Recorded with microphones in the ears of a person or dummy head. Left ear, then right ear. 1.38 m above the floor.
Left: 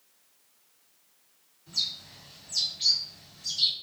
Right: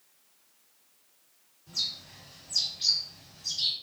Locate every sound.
1.7 s a bird: 45° left (ahead or behind), 1.5 m